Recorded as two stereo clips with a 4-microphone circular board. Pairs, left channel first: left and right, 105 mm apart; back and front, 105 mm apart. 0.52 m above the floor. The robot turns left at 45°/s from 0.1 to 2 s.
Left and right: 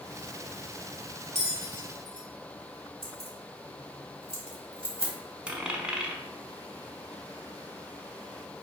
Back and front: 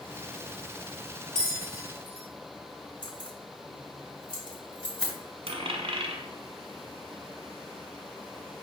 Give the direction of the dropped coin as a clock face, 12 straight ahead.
12 o'clock.